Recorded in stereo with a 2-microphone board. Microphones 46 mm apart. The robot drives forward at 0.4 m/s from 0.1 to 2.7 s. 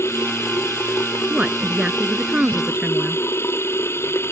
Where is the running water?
70° left (ahead or behind); by 4.3 s 65° left (ahead or behind).